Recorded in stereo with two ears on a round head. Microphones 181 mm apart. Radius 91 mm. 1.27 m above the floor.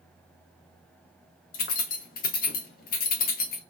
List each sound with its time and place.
1.5 s keys jangling: 45° left (ahead or behind), 0.5 m